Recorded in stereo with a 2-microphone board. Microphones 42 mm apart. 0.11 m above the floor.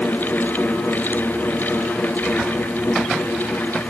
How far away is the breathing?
No breathing in this recording.